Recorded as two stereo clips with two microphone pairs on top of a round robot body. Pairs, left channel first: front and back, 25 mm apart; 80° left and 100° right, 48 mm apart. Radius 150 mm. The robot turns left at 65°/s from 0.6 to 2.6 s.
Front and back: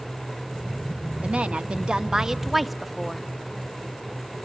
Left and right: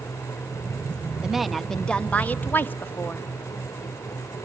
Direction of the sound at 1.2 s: Straight behind.